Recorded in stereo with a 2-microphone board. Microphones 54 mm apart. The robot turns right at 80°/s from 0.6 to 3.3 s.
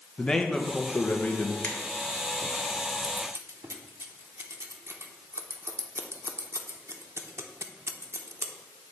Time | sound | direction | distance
0.2 | a man speaking | 30° left | 0.8 m
1.6 | a finger snap | 40° left (ahead or behind) | 1.3 m
3.0 | scissors | 50° right (ahead or behind) | 0.7 m